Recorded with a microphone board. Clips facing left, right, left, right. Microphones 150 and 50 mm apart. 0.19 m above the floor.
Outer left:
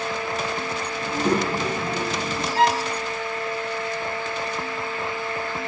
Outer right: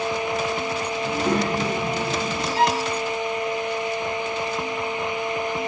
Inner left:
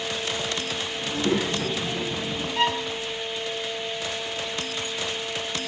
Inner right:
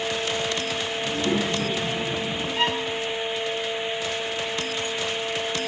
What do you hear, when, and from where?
1.0 s a child speaking: 30° left (ahead or behind), 3 m; by 2.5 s 35° left (ahead or behind), 2.5 m
2.5 s a violin: 45° left (ahead or behind), 3.5 m